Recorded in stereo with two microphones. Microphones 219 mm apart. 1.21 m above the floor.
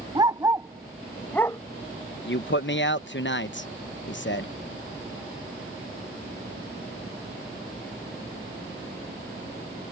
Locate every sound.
0.1 s a dog barking: 20° right (ahead or behind); by 1.6 s 15° left (ahead or behind)
2.2 s a man speaking: 60° left (ahead or behind)